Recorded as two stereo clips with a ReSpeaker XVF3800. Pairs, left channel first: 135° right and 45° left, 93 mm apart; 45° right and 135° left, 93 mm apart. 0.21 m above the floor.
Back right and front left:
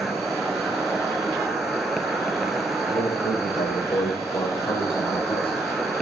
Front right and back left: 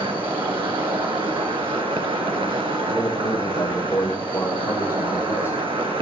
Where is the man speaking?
105° right, 9 m.